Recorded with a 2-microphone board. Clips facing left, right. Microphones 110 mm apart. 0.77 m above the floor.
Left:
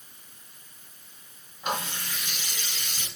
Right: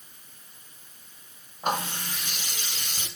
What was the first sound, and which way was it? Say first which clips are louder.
A running tap: right 3 dB; 45° right (ahead or behind).